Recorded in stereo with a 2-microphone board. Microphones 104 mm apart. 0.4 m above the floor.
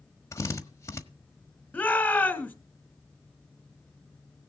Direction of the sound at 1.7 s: 15° left (ahead or behind).